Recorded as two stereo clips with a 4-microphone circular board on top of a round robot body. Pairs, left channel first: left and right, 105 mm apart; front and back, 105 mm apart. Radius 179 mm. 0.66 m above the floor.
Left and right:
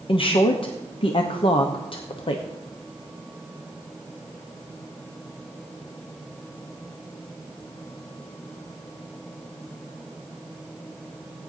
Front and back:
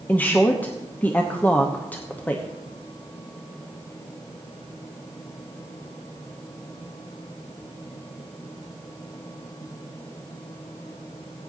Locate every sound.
0.1 s a woman speaking: 75° left, 1.0 m